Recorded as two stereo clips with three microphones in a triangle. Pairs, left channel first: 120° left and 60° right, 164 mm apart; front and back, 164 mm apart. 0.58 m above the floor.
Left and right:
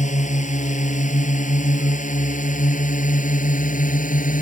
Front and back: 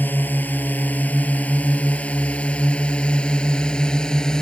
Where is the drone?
80° left; by 4.4 s 85° left.